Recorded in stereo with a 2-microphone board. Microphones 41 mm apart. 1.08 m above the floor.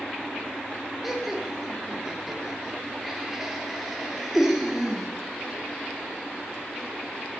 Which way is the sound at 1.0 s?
10° right (ahead or behind).